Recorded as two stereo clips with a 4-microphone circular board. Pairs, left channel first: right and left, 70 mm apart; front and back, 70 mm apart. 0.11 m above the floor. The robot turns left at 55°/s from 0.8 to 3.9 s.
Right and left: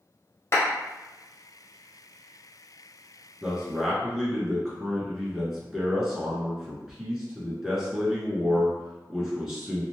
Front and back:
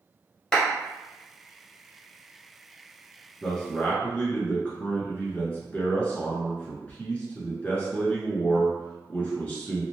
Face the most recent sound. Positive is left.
turn(degrees=20)